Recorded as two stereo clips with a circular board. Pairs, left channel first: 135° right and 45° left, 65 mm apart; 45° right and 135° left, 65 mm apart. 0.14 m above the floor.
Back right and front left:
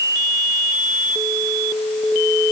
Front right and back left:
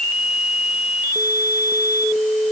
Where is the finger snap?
I don't hear a finger snap.